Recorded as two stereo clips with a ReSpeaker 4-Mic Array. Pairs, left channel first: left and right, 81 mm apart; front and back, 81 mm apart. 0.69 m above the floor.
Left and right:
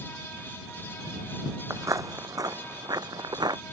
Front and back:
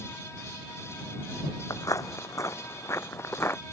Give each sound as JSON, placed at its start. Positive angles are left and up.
{"t": 1.7, "sound": "footsteps", "azimuth_deg": -40}